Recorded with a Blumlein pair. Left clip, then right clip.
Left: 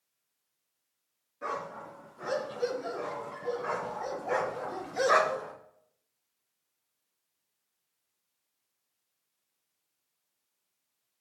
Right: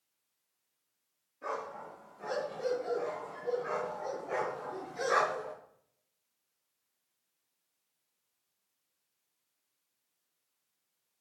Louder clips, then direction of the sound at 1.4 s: Left 2 dB; 55° left.